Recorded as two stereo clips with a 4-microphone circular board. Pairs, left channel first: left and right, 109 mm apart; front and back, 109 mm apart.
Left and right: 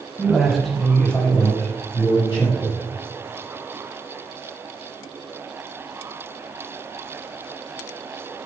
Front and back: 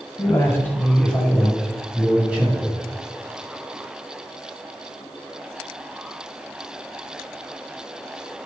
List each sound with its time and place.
0.2 s a man speaking: 20° right, 1.6 m; by 2.8 s 115° left, 2.5 m